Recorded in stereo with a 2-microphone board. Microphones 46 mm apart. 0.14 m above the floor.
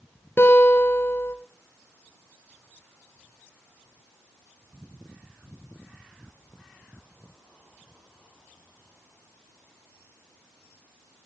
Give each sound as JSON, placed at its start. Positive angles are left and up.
{"t": 0.4, "sound": "a guitar", "side_deg": 55, "distance_m": 3.0}